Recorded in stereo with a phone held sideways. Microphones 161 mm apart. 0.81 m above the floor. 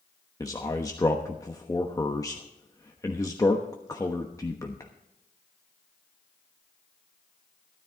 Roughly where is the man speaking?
Left.